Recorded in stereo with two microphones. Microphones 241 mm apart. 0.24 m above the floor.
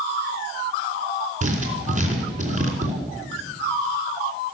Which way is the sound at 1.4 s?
30° right (ahead or behind).